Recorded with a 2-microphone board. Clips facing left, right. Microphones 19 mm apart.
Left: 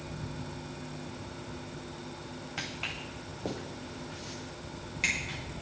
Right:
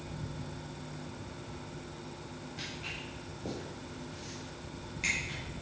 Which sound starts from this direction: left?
Footsteps, at 2.6 s.